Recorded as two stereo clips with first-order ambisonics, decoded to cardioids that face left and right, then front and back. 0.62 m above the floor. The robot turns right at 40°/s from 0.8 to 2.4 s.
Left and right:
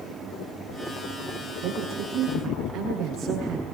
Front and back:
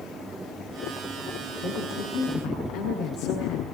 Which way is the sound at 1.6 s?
45° right.